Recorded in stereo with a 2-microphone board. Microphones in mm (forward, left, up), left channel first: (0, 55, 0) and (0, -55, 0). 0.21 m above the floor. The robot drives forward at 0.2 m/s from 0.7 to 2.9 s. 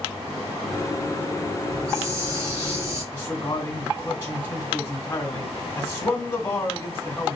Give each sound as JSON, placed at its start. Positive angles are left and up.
{"t": 1.7, "sound": "a hiss", "side_deg": -30, "distance_m": 2.0}
{"t": 3.1, "sound": "a man speaking", "side_deg": 25, "distance_m": 1.6}